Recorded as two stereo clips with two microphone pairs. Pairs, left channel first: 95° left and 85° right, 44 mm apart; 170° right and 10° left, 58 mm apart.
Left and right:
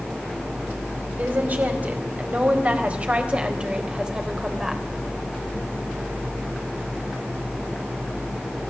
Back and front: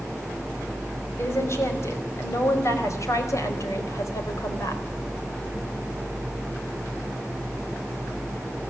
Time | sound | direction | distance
1.2 | a woman speaking | 130° right | 5 m